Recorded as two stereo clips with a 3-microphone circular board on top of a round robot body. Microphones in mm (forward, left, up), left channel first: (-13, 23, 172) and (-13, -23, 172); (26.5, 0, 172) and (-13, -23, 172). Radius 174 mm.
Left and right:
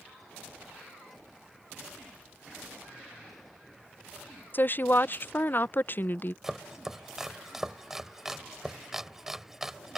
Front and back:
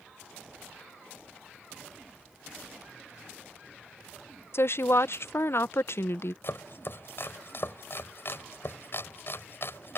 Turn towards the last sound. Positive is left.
turn(degrees=-5)